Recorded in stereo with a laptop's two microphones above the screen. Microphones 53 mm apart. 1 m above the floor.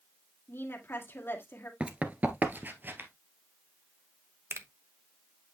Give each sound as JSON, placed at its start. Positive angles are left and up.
{"t": 0.5, "sound": "a woman speaking", "side_deg": 45, "distance_m": 1.9}
{"t": 1.8, "sound": "running footsteps", "side_deg": -20, "distance_m": 1.0}
{"t": 4.5, "sound": "a finger snap", "side_deg": -55, "distance_m": 0.8}